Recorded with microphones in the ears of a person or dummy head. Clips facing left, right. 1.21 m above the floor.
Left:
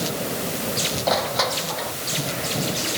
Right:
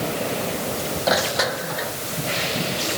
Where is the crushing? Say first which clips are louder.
Right 1 dB; 10° right (ahead or behind).